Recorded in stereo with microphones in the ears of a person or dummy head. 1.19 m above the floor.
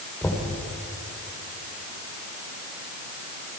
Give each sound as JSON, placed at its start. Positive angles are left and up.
{"t": 0.2, "sound": "knocking", "side_deg": 10, "distance_m": 3.0}